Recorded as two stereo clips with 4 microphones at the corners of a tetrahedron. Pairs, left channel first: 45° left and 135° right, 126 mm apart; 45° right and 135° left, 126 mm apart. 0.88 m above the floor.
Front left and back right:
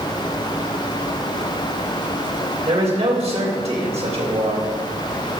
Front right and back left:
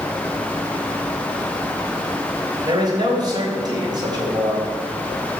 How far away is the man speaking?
About 3.5 m.